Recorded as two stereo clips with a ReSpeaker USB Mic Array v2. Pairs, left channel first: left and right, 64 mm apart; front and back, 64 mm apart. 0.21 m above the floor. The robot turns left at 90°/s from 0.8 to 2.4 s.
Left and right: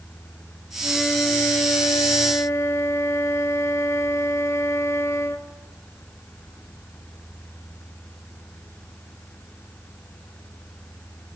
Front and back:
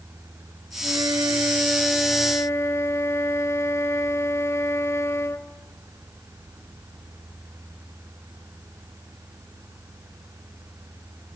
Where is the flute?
170° right, 1.0 m; by 5.5 s 45° left, 1.0 m.